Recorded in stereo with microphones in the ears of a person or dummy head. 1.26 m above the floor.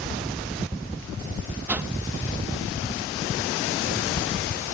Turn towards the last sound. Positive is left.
turn(degrees=-15)  # may be behind; listen again after turning